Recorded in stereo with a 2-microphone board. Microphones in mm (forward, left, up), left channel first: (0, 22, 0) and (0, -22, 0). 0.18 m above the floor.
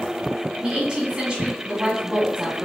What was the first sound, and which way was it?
A woman speaking, 20° right (ahead or behind).